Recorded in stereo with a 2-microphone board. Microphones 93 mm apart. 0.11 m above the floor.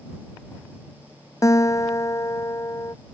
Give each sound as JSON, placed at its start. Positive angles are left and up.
{"t": 1.4, "sound": "a guitar", "side_deg": 35}